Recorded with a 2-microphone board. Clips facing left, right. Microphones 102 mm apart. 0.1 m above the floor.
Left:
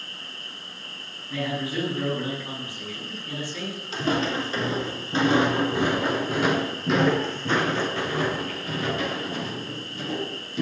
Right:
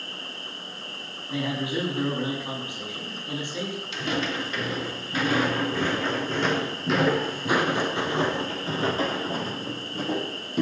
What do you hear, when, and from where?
0.0 s an insect: 70° right (ahead or behind), 4.5 m
1.3 s a man speaking: 25° right (ahead or behind), 7.5 m
3.9 s footsteps: 40° left (ahead or behind), 3.5 m; by 10.6 s 55° right (ahead or behind), 3.5 m